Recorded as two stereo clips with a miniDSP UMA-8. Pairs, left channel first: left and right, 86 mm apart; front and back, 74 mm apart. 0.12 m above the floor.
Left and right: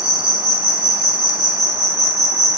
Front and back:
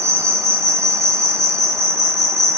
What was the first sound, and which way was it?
An insect, 165° right.